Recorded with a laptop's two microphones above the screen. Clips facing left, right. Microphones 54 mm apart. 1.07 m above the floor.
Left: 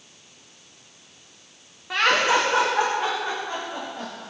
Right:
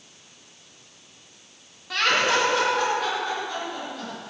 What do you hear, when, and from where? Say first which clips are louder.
1.9 s laughter: left 2 dB; 20° left (ahead or behind), 1.3 m; by 4.3 s 30° left (ahead or behind), 5 m